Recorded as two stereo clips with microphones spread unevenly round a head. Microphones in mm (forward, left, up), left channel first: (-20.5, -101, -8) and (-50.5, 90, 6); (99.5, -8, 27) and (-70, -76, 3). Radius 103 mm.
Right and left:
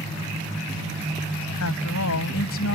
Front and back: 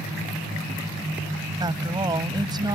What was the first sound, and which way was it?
A woman speaking, 90° right.